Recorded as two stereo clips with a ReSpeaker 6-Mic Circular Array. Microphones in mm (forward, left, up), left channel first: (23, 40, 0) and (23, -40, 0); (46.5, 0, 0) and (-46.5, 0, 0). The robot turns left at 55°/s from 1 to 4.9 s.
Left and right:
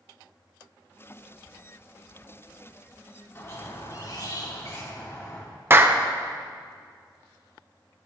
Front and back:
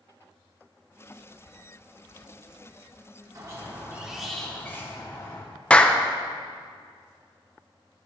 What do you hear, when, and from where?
3.4 s a squeak: 140° left, 1.6 m; by 5.5 s 55° left, 1.6 m
5.7 s a clap: 65° right, 0.6 m